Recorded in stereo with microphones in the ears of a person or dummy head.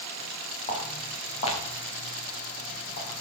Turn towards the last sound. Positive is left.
turn(degrees=30)  # may be behind; listen again after turning